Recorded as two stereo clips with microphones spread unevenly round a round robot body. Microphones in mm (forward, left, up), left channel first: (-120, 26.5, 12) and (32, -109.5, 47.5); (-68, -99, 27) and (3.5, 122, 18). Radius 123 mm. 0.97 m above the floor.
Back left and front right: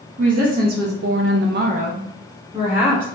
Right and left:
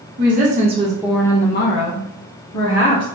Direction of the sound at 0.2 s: 20° left.